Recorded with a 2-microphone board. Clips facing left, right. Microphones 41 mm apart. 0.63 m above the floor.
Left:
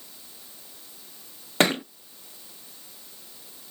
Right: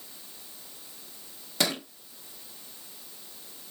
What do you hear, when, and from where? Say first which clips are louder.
1.6 s a thud: left 7 dB; 40° left (ahead or behind), 0.7 m